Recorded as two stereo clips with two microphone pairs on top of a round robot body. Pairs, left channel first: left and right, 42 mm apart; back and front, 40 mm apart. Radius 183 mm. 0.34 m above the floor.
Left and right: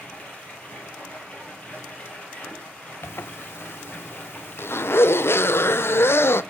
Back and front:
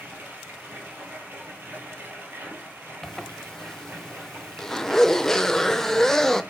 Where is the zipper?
100° left, 0.6 m.